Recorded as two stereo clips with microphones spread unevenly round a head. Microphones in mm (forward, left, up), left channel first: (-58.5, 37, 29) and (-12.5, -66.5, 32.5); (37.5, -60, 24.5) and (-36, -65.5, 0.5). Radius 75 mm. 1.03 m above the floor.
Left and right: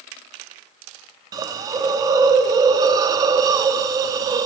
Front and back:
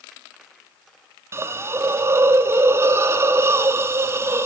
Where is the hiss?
110° right, 0.6 m.